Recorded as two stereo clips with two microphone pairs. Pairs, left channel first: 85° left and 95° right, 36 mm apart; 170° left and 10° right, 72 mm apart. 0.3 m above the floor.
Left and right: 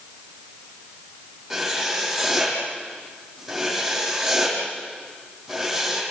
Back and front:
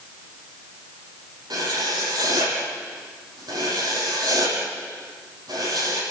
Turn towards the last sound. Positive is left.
turn(degrees=-10)